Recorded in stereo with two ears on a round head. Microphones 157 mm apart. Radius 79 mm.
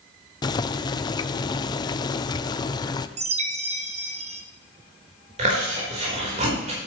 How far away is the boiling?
About 0.5 m.